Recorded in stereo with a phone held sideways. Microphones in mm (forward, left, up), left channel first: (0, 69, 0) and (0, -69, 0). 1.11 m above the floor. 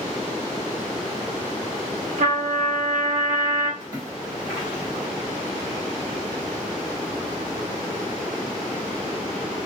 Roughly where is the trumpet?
Right.